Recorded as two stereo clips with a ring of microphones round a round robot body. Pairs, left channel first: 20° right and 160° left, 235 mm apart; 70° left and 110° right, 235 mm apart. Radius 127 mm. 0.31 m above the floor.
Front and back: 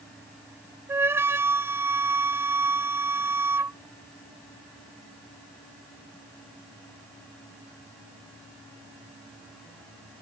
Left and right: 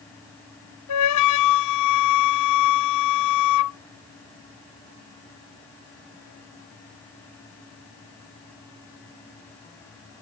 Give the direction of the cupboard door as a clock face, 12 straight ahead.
I don't hear a cupboard door.